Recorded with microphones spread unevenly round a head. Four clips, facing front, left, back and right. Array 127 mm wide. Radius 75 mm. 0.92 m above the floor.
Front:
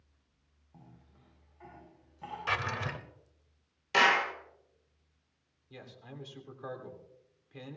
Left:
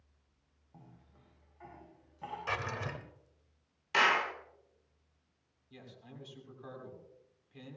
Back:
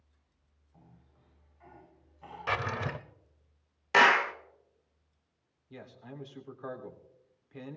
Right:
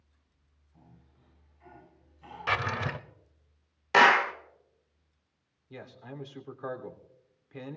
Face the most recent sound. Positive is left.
turn(degrees=-80)